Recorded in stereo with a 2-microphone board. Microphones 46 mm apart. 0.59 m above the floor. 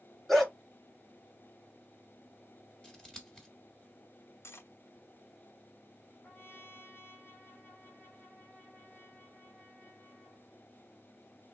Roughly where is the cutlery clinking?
Left.